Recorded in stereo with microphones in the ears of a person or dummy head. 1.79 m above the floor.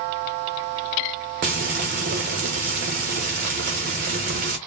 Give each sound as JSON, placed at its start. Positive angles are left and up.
{"t": 1.4, "sound": "frying", "side_deg": -40, "distance_m": 0.9}